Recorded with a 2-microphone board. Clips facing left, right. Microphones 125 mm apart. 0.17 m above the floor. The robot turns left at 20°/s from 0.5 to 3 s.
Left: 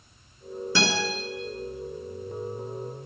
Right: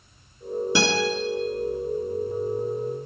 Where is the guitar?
15° right (ahead or behind), 2.5 m.